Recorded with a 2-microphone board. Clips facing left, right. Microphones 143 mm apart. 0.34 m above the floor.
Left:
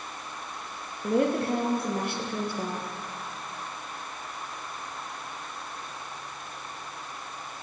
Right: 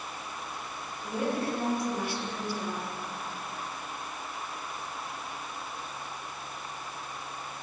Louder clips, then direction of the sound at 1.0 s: Left 6 dB; 60° left (ahead or behind).